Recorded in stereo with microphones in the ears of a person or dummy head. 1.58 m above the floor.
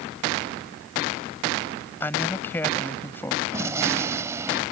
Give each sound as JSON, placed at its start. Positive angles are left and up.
{"t": 2.0, "sound": "a man speaking", "side_deg": 10}
{"t": 3.5, "sound": "a gunshot", "side_deg": -20}